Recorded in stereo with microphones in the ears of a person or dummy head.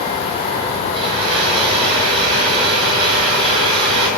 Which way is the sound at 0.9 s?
30° right (ahead or behind).